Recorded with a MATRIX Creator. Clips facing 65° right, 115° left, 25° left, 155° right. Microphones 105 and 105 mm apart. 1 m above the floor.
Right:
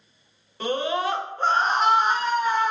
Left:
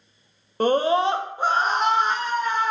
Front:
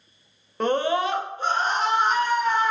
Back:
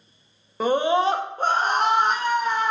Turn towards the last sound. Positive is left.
turn(degrees=-140)